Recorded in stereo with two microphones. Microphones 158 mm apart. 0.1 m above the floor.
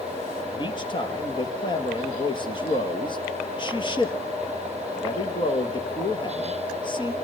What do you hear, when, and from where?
0.5 s a man speaking: 30° left (ahead or behind), 2.5 m